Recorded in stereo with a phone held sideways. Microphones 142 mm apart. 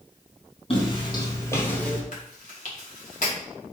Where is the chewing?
65° left (ahead or behind), 1.2 m.